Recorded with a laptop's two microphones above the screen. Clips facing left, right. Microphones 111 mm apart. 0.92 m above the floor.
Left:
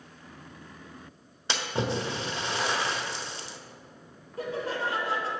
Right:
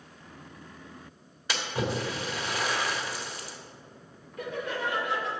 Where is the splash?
25° left (ahead or behind), 1.3 m.